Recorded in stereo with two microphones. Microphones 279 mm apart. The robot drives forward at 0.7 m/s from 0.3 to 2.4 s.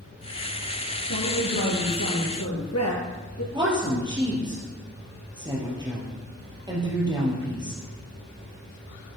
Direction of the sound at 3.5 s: 15° right (ahead or behind).